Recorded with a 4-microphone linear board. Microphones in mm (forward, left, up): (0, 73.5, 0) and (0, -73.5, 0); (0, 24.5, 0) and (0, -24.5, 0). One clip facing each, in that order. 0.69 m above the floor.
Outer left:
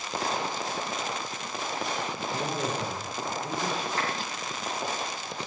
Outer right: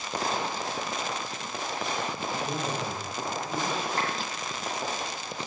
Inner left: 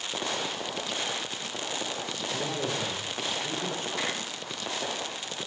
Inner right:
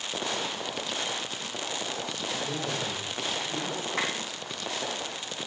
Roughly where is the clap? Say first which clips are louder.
Outer right 1 dB, inner right 3 dB; right.